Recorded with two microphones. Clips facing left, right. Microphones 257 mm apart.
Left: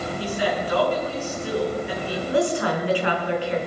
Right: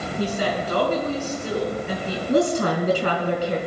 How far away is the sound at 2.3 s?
About 4 m.